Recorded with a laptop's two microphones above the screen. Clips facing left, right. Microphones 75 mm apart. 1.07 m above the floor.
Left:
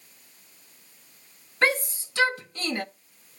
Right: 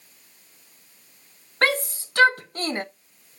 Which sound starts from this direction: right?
A shout, at 1.6 s.